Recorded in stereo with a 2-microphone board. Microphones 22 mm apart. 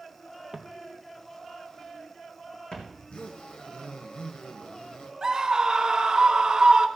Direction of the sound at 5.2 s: 30° right (ahead or behind).